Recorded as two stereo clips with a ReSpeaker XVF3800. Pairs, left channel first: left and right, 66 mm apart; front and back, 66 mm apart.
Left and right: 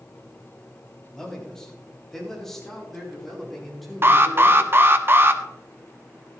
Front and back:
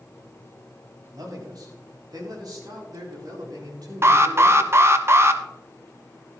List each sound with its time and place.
1.1 s a man speaking: 170° left, 4 m; by 4.9 s straight behind, 6 m
4.0 s an alarm: 135° right, 0.9 m